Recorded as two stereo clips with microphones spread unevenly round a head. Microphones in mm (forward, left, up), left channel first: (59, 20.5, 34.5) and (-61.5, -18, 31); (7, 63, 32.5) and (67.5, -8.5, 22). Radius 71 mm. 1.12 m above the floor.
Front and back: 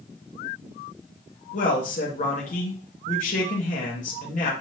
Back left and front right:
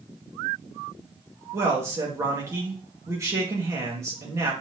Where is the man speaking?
5° left, 2 m.